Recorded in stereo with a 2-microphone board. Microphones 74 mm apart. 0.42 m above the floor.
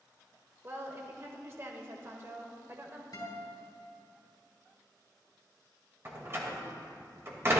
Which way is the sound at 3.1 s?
60° left (ahead or behind).